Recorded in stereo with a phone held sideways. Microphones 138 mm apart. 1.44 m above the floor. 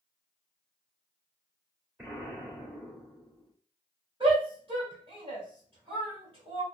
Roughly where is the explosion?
Centre.